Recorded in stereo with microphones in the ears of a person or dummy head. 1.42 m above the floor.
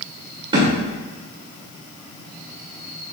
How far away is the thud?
About 2 m.